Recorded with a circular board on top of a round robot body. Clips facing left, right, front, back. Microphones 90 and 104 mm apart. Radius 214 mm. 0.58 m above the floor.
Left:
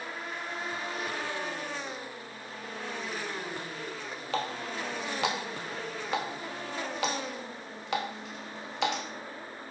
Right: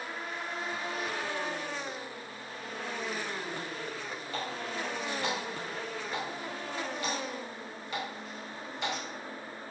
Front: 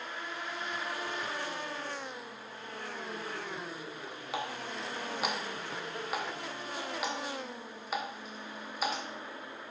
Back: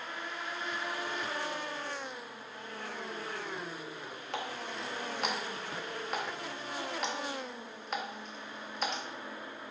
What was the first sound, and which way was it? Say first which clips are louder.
A running tap: left 4 dB, front 1 dB; 85° left.